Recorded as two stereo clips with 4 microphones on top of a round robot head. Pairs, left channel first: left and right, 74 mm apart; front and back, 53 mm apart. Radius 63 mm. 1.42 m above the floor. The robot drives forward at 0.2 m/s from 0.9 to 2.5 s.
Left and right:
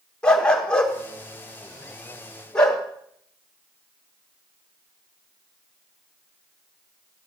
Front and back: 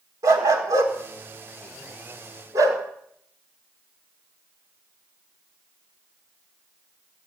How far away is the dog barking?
About 2.0 m.